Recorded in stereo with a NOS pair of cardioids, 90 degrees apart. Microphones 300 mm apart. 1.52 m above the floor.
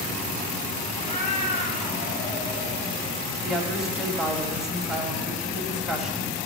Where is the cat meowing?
25° left, 3.5 m; by 3.0 s 35° left, 2 m.